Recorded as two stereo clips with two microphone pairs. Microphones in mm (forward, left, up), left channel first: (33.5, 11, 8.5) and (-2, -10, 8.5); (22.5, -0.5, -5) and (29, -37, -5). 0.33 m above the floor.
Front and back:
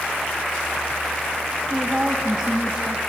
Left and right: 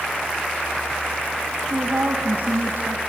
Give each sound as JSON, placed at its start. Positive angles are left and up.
{"t": 1.7, "sound": "a woman speaking", "azimuth_deg": -80, "distance_m": 2.0}